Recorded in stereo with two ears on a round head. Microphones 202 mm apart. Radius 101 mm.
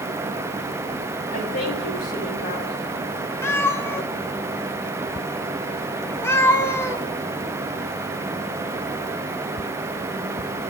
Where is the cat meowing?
10° left (ahead or behind), 0.7 m.